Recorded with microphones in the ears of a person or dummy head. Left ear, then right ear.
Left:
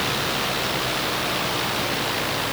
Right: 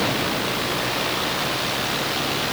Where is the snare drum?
I don't hear a snare drum.